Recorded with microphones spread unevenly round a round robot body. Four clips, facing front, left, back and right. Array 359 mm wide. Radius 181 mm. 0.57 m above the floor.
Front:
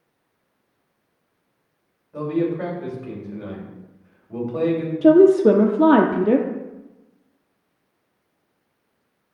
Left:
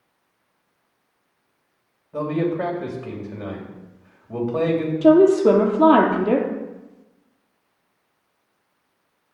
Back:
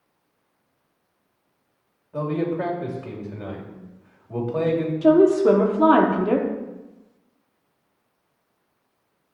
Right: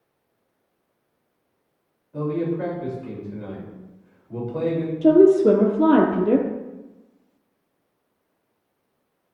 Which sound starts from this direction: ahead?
A woman speaking, at 5.0 s.